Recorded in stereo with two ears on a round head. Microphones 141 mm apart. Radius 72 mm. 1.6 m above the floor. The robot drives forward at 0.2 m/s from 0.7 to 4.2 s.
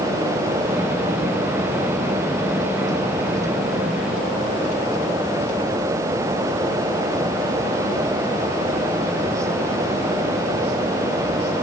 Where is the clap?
I don't hear a clap.